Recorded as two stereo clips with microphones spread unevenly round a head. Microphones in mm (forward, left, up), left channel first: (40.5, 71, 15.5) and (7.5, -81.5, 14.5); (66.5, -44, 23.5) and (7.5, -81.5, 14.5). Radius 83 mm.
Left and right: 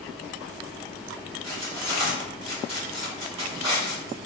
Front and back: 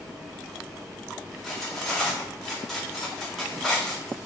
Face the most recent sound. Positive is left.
turn(degrees=-50)